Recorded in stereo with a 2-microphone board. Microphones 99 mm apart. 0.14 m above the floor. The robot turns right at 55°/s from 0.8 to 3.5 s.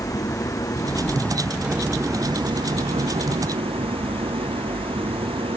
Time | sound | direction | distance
0.0 | an engine running | 140° left | ?